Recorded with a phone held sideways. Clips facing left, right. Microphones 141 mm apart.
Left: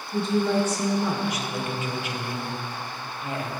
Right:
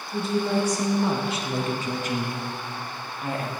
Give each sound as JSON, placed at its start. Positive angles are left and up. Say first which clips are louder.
{"t": 0.1, "sound": "a woman speaking", "louder": "left 2 dB", "side_deg": 0, "distance_m": 1.2}